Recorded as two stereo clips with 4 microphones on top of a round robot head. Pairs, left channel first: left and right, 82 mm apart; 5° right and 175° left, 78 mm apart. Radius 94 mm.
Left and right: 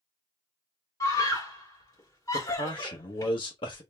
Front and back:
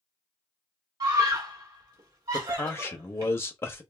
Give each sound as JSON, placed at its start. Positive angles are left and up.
{"t": 1.0, "sound": "a scream", "azimuth_deg": 140, "distance_m": 1.8}
{"t": 2.3, "sound": "a man speaking", "azimuth_deg": 55, "distance_m": 1.0}